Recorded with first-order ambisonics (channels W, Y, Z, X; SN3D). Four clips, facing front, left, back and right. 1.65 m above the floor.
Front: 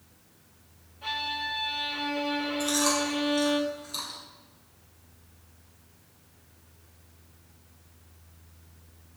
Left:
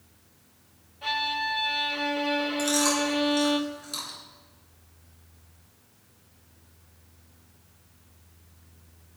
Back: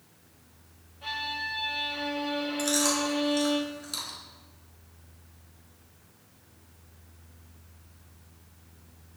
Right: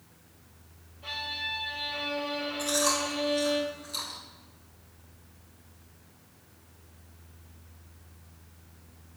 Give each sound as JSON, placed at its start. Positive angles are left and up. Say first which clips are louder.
{"t": 1.0, "sound": "a violin", "louder": "left 6 dB, front 1 dB", "azimuth_deg": 90, "distance_m": 1.8}
{"t": 2.6, "sound": "chewing", "louder": "left 1 dB, even", "azimuth_deg": 145, "distance_m": 3.5}